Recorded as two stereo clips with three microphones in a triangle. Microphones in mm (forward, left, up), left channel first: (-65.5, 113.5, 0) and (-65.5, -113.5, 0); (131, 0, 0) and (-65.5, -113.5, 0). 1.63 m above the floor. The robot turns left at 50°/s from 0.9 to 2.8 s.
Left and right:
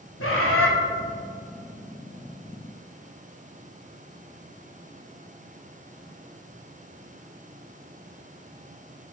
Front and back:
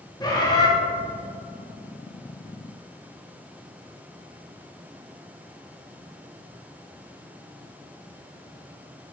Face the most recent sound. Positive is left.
turn(degrees=5)